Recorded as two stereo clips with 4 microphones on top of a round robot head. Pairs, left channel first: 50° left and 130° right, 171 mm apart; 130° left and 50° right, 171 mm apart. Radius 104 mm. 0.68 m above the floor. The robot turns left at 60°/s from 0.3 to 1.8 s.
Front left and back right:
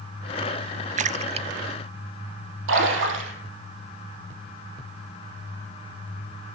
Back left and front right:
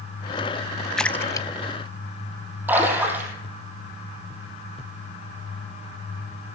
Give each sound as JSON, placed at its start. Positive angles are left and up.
{"t": 1.0, "sound": "a splash", "azimuth_deg": -140, "distance_m": 0.6}
{"t": 2.7, "sound": "a splash", "azimuth_deg": -125, "distance_m": 6.0}